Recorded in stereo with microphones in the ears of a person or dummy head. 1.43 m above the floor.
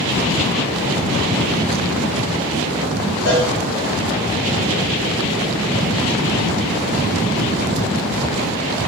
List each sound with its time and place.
3.2 s a cowbell: 55° left (ahead or behind), 3 m